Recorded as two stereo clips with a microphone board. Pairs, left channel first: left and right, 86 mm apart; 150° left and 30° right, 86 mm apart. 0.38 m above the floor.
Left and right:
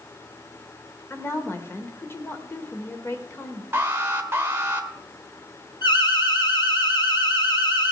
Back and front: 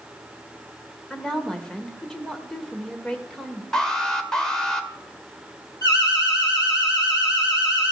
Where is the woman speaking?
75° left, 1.4 m.